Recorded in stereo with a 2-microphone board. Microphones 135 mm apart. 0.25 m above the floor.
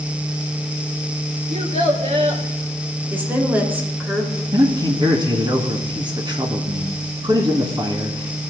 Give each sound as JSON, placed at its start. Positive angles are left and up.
{"t": 1.5, "sound": "a child speaking", "side_deg": -55, "distance_m": 2.5}
{"t": 3.1, "sound": "a woman speaking", "side_deg": -15, "distance_m": 3.5}
{"t": 4.5, "sound": "a man speaking", "side_deg": -35, "distance_m": 2.5}